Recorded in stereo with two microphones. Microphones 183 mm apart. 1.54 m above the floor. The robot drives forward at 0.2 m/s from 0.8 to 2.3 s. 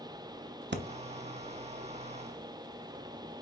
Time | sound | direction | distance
0.7 | breathing | 75° right (ahead or behind) | 0.7 m